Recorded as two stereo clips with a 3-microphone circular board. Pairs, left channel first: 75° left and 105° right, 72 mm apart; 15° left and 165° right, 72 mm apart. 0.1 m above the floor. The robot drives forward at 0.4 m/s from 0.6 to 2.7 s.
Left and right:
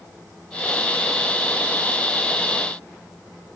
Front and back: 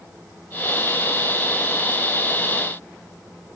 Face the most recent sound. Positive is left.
No sound to turn to.